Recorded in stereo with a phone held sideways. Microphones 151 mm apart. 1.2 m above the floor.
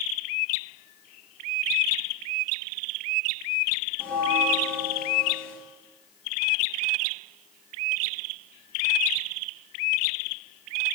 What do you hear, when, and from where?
4.0 s a bell: 10° left (ahead or behind), 4 m